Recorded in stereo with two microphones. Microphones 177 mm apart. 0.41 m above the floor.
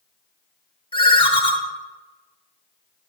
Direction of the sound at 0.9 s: 30° left (ahead or behind).